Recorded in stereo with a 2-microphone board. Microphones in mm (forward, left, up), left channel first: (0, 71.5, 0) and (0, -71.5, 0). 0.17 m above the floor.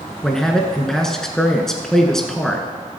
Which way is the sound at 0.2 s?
5° left (ahead or behind).